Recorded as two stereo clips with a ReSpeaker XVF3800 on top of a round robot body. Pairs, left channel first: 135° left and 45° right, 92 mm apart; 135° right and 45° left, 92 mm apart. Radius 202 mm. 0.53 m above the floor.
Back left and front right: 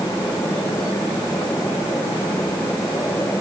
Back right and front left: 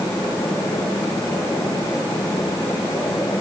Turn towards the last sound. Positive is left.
No sound to turn to.